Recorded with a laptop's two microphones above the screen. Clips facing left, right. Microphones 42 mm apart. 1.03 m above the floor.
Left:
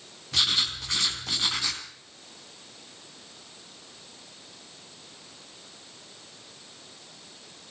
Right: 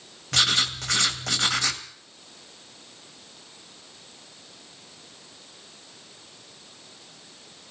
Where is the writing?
70° right (ahead or behind), 1.9 m.